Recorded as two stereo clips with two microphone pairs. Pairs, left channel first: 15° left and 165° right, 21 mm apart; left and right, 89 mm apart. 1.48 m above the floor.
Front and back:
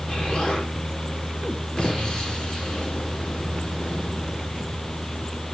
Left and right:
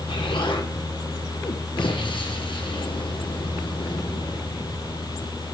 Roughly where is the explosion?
Left.